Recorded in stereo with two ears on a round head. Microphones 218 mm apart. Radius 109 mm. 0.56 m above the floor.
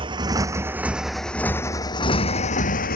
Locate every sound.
0.0 s a motorcycle: 25° right (ahead or behind); by 3.0 s 40° left (ahead or behind)